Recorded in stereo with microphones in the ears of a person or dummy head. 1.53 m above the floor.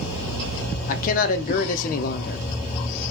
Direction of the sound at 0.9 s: 45° left (ahead or behind).